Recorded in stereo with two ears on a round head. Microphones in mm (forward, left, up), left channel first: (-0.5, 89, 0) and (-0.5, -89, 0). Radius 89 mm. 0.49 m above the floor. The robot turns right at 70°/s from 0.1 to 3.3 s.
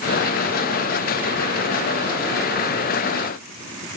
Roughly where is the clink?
No clink in this recording.